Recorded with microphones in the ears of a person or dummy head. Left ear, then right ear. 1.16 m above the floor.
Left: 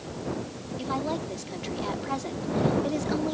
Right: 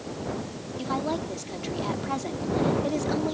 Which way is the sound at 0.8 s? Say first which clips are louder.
Right 1 dB; centre (ahead or behind).